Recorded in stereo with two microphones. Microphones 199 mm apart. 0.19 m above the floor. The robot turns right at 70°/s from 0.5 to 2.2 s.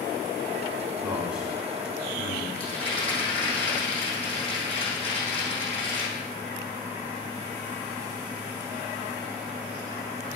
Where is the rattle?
30° left (ahead or behind), 5 m.